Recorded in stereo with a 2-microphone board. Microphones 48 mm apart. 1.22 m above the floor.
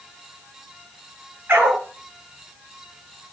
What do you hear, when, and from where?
1.5 s a dog barking: 35° right (ahead or behind), 8.5 m